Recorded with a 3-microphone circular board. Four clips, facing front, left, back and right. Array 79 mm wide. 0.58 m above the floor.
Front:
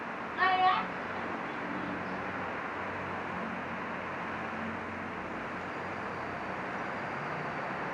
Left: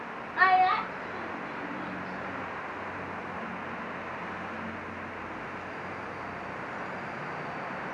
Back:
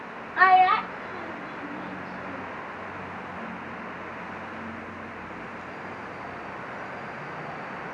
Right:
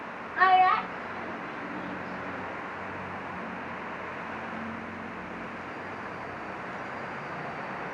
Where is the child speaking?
Straight behind, 0.9 m; by 2.6 s 175° left, 3.5 m.